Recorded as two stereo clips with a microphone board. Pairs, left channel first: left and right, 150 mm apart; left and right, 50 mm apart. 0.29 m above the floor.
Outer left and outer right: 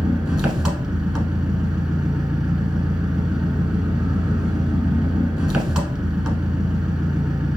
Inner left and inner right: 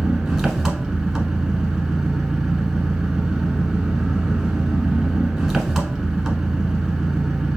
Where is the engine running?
5° right (ahead or behind), 1.0 m.